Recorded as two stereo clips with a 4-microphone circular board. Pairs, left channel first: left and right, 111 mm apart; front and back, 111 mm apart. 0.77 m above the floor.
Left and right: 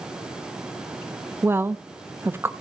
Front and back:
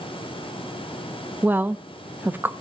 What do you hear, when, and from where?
1.4 s a woman speaking: 130° right, 0.7 m